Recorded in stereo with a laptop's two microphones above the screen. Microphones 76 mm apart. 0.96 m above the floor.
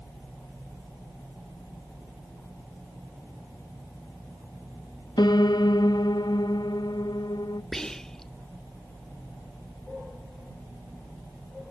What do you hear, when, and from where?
5.2 s a piano: 65° left (ahead or behind), 0.7 m
7.7 s whispering: 10° left (ahead or behind), 1.3 m